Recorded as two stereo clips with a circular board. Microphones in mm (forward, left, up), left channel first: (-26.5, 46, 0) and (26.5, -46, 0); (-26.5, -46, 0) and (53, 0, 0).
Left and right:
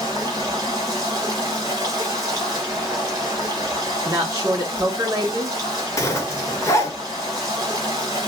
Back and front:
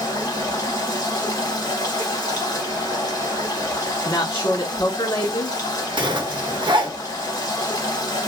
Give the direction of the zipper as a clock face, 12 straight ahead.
10 o'clock.